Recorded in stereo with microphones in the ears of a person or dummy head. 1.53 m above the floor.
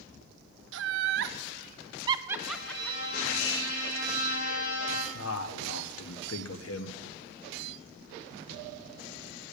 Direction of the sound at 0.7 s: 75° right (ahead or behind).